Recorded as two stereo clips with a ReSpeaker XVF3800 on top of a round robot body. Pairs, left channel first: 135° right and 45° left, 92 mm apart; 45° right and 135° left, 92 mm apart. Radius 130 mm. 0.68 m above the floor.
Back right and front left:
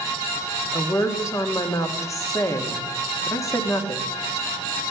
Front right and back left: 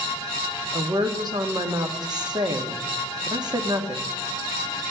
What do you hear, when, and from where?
0.7 s a woman speaking: 170° left, 1.9 m